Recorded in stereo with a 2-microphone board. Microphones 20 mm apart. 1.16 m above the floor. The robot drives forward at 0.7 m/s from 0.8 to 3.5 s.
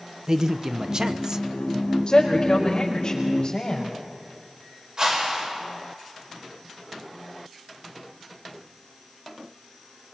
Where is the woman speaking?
45° left (ahead or behind), 5 m; by 3.9 s 40° left (ahead or behind), 5.5 m.